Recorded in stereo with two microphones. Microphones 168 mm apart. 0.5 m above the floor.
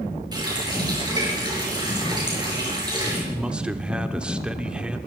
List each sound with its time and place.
0.3 s a running tap: 25° right (ahead or behind), 6 m
3.3 s a man speaking: 5° right (ahead or behind), 0.9 m